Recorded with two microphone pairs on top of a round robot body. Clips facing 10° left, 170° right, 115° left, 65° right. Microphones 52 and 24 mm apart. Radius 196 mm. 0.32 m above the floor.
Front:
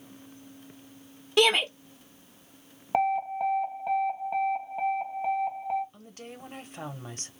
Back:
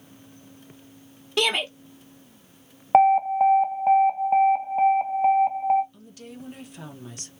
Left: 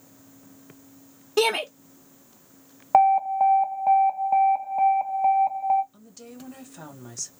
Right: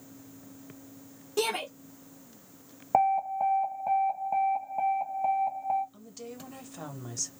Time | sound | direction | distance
1.4 | a shout | 85° left | 1.0 m
2.9 | an alarm | 150° left | 0.9 m
5.9 | a woman speaking | 10° left | 1.3 m